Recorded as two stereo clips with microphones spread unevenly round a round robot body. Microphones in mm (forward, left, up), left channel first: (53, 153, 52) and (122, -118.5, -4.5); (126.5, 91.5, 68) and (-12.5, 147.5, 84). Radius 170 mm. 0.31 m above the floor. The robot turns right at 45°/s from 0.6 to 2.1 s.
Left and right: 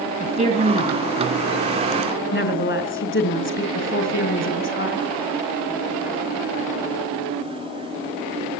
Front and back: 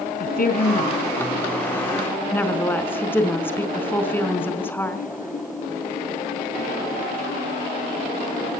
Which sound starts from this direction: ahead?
A woman speaking, at 0.2 s.